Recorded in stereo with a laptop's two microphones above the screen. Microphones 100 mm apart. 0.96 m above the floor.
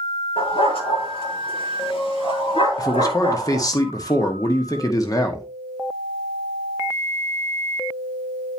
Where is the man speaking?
40° left (ahead or behind), 1.4 m.